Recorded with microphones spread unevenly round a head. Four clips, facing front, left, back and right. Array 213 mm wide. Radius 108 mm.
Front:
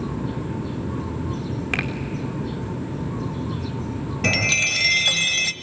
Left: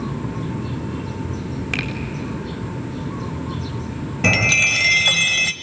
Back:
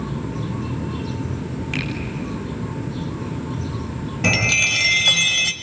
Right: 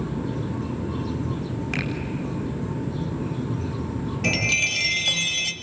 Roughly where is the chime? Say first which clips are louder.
Left 10 dB, back 3 dB; left.